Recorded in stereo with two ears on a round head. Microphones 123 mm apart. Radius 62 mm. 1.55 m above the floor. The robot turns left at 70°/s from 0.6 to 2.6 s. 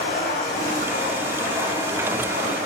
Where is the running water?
65° left, 6.5 m; by 2.7 s 75° right, 6.5 m.